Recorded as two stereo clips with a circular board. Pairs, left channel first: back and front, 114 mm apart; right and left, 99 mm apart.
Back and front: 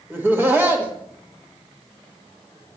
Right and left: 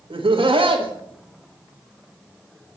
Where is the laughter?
70° left, 1.5 m.